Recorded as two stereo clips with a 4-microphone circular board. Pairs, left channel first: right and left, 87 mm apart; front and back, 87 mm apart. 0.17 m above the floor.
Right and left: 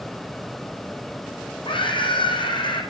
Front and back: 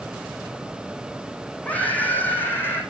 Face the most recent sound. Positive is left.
turn(degrees=-65)